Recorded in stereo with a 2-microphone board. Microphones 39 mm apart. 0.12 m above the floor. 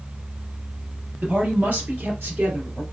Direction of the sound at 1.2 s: 45° right (ahead or behind).